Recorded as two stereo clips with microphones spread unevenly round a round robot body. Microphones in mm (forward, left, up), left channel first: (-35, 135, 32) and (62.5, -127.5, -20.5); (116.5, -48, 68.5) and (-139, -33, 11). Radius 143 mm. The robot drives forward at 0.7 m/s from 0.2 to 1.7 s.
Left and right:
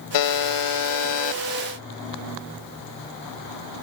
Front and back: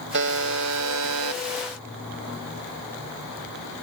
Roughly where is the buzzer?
Behind left.